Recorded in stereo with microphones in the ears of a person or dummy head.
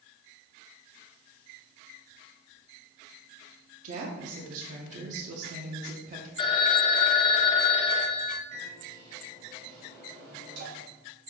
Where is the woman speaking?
45° right (ahead or behind), 0.7 m.